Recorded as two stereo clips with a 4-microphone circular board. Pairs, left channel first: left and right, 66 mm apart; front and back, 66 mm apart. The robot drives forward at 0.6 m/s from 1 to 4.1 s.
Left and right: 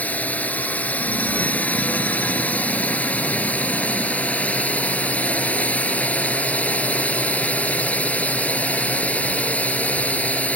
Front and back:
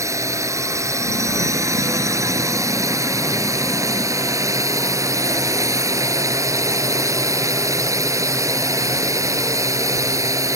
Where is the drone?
155° left.